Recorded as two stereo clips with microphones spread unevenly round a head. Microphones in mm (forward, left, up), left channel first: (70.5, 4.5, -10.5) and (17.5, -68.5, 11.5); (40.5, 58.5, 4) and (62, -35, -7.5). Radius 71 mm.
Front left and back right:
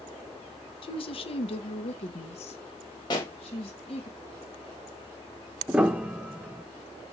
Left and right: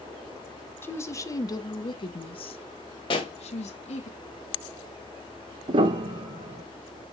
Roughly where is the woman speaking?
Ahead left.